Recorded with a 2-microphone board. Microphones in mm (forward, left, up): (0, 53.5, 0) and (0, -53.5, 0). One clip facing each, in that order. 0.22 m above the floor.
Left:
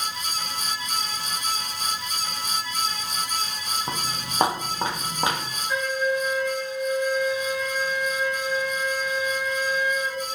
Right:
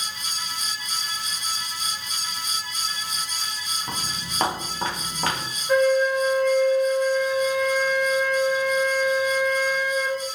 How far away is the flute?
About 1.6 m.